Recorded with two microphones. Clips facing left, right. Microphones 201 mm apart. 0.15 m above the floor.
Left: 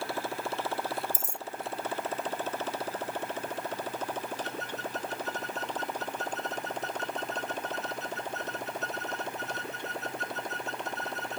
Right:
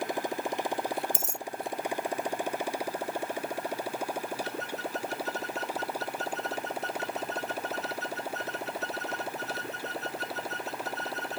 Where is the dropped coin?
80° right.